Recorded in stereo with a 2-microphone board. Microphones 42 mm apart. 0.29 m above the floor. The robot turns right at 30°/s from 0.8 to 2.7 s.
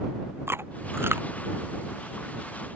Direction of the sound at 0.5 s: 75° right (ahead or behind).